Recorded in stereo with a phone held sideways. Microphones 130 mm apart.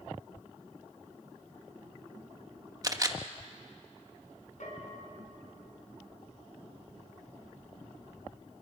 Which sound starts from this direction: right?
A camera shutter, at 2.8 s.